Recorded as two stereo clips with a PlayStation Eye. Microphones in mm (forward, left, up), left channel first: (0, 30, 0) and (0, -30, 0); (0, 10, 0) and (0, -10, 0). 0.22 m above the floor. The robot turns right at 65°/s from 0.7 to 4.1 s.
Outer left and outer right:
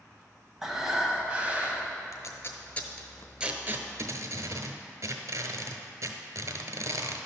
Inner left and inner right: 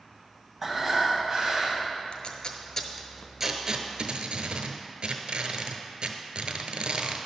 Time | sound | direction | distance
0.6 | breathing | centre (ahead or behind) | 1.2 m
2.1 | tape being pulled | 60° left (ahead or behind) | 0.9 m